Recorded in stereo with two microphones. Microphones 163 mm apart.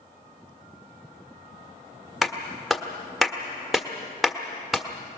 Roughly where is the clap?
Centre.